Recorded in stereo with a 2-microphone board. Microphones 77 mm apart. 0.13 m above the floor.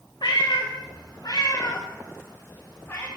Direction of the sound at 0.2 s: 60° left (ahead or behind).